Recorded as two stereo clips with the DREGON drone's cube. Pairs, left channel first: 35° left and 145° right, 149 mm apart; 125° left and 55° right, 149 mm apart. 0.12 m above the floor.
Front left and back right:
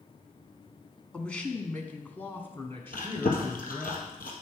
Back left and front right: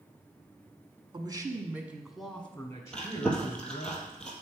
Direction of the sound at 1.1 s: 45° right.